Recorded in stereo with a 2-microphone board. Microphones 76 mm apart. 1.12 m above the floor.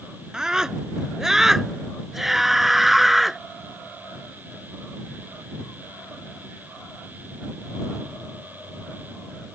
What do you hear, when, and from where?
0.3 s a scream: 5° right (ahead or behind); by 3.4 s centre (ahead or behind)